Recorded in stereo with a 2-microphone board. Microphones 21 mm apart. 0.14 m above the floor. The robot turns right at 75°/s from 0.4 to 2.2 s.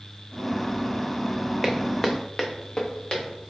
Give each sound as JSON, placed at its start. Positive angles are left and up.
{"t": 1.6, "sound": "footsteps", "side_deg": 5, "distance_m": 0.7}